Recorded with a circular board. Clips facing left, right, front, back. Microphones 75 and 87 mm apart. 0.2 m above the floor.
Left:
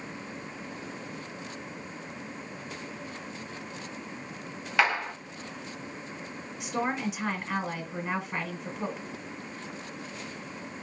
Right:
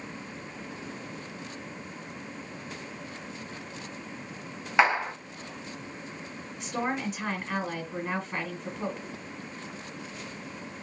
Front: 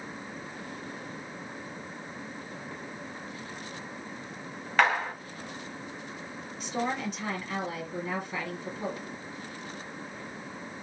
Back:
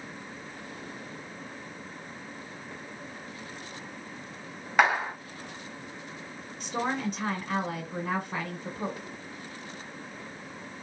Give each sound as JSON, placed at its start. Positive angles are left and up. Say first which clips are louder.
{"t": 4.8, "sound": "a clap", "louder": "right 3 dB, back 1 dB", "azimuth_deg": -120, "distance_m": 0.9}
{"t": 6.6, "sound": "a woman speaking", "louder": "left 1 dB, back 1 dB", "azimuth_deg": 180, "distance_m": 1.3}